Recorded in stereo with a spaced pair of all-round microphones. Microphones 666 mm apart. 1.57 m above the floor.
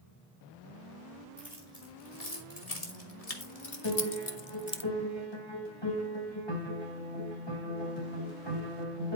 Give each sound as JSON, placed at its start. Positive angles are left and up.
{"t": 1.4, "sound": "keys jangling", "side_deg": 65, "distance_m": 4.0}
{"t": 3.8, "sound": "a piano", "side_deg": 40, "distance_m": 5.0}